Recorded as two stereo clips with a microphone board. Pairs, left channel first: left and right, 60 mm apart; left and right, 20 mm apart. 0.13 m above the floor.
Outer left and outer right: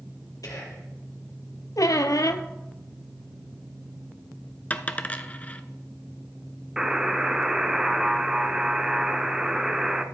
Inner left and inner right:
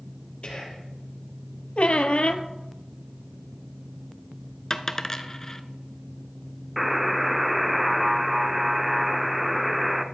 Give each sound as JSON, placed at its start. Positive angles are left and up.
{"t": 0.4, "sound": "whispering", "side_deg": 70, "distance_m": 3.0}
{"t": 1.8, "sound": "a squeak", "side_deg": 70, "distance_m": 0.6}
{"t": 4.7, "sound": "a dropped coin", "side_deg": 25, "distance_m": 0.5}
{"t": 6.8, "sound": "a buzzer", "side_deg": -10, "distance_m": 0.5}